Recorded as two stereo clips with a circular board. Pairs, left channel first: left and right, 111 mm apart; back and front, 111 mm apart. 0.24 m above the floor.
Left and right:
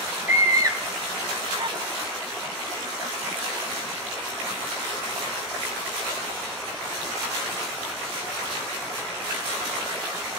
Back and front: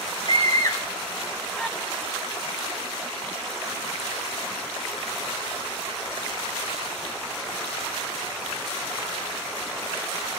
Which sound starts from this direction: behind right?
A scream, at 0.3 s.